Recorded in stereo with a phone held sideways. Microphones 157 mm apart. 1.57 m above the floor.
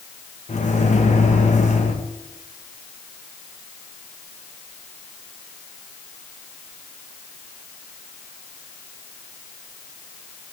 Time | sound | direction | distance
0.5 | a microwave | 50° left (ahead or behind) | 1.1 m